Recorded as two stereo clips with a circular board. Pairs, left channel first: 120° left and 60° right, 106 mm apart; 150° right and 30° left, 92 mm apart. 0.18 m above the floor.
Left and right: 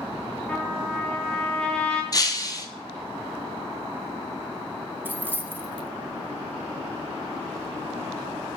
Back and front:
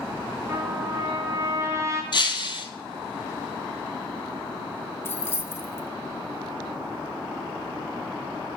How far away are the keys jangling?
About 0.7 m.